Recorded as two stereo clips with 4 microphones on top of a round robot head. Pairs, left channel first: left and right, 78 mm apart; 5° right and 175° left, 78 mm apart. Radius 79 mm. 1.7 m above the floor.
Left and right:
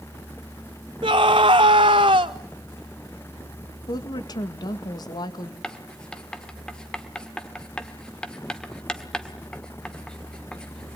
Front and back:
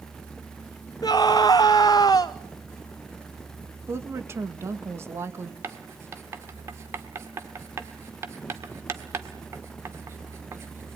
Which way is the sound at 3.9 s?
120° left.